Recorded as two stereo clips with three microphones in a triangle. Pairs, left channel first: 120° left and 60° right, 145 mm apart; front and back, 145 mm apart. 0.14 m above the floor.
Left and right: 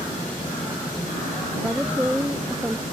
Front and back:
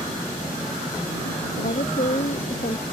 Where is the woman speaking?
20° left.